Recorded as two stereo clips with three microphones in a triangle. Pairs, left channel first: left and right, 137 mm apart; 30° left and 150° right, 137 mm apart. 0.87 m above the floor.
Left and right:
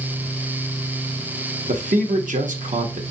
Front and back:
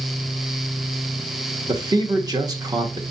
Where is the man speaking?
90° right, 1.0 m.